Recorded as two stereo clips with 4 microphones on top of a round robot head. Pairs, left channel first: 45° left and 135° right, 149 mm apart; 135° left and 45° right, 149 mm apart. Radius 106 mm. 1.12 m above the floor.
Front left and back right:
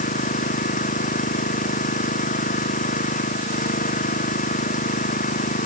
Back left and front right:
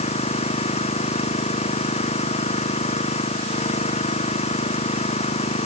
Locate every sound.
0.0 s an engine running: 85° left